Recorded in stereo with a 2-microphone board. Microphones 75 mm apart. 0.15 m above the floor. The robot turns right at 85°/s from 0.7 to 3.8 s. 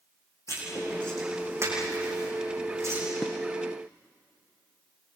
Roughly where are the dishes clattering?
Centre.